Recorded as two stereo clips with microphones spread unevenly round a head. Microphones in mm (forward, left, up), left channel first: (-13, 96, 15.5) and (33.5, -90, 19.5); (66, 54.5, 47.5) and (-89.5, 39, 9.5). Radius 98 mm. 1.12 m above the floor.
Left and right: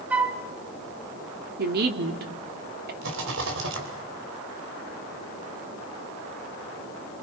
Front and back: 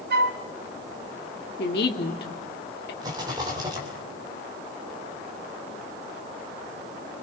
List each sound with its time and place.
0.1 s a flute: 160° right, 1.8 m
1.6 s a woman speaking: 35° right, 2.5 m
3.0 s a rattle: 105° right, 4.5 m